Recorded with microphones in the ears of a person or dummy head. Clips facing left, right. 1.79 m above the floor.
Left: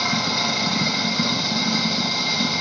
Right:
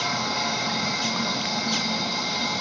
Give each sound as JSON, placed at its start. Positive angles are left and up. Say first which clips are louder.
{"t": 0.0, "sound": "running water", "louder": "left 3 dB", "side_deg": 55, "distance_m": 0.9}